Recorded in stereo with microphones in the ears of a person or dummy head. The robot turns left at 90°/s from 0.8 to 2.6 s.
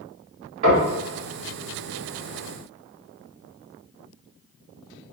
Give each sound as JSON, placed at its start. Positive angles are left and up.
{"t": 0.6, "sound": "knocking", "side_deg": -45, "distance_m": 1.8}